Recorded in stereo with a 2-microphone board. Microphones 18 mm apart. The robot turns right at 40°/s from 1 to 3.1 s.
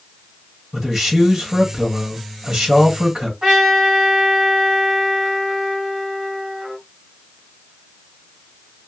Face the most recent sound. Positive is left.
turn(degrees=-65)  # may be behind; listen again after turning